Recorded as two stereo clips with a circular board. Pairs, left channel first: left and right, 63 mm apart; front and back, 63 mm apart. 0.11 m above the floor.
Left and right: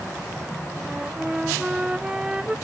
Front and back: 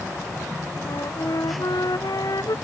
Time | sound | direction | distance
0.8 | a flute | 15° right | ?